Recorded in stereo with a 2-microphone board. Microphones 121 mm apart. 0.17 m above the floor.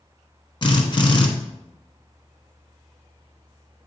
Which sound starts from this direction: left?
A drill, at 0.6 s.